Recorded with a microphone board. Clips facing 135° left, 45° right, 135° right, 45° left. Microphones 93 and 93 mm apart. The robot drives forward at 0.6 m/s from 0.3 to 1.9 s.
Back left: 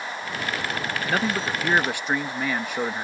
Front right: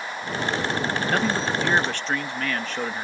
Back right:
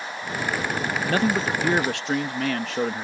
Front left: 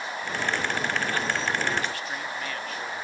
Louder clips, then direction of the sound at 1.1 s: Even, back right 5 dB; 135° right.